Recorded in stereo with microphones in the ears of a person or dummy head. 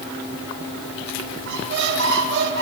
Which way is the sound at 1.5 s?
55° right (ahead or behind).